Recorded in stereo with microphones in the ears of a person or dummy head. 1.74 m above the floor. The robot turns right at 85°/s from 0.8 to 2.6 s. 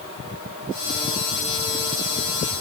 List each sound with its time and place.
Only background noise.